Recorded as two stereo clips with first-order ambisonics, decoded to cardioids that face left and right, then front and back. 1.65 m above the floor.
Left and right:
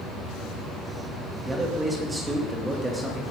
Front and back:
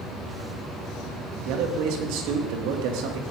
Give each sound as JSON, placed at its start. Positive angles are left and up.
{"t": 1.4, "sound": "a man speaking", "azimuth_deg": -170, "distance_m": 3.0}